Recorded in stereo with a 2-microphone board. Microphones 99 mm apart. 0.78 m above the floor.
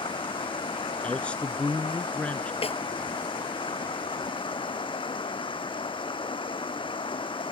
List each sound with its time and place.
0.0 s running water: 55° left (ahead or behind)
1.0 s a man speaking: 15° left (ahead or behind)
2.6 s a snare drum: 85° left